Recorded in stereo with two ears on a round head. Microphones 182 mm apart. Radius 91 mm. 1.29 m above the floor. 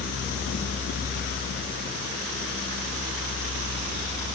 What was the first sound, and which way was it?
Only background noise.